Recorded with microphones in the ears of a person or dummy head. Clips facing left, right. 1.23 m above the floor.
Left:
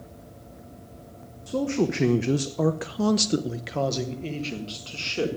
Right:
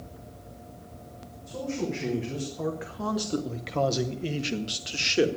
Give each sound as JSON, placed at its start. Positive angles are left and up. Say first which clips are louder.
{"t": 1.5, "sound": "a man speaking", "louder": "left 7 dB", "side_deg": 70, "distance_m": 1.3}